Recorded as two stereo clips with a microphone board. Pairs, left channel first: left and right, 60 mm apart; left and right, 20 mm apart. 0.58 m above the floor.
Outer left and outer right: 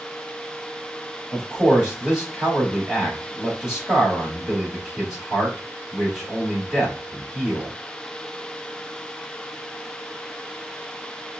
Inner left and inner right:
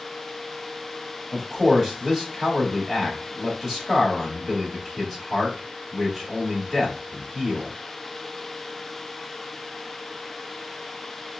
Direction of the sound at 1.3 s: 10° right (ahead or behind).